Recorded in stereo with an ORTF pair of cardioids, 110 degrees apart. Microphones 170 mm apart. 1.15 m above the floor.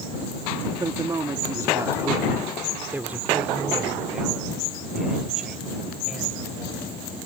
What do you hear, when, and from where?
0.8 s a woman speaking: 25° right; by 6.8 s straight ahead